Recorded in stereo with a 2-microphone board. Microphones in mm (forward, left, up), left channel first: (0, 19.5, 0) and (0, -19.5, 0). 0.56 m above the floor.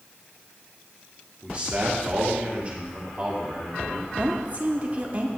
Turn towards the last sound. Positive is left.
turn(degrees=-30)  # may be behind; listen again after turning